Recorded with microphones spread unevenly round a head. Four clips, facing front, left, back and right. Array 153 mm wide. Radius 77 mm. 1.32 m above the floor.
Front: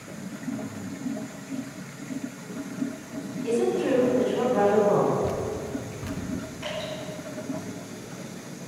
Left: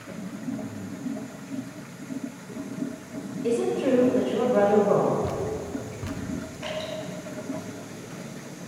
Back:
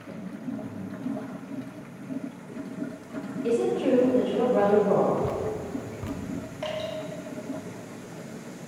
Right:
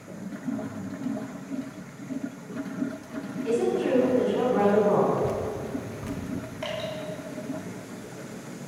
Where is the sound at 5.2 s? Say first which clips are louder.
Even, front 1 dB; 175° left, 0.5 m.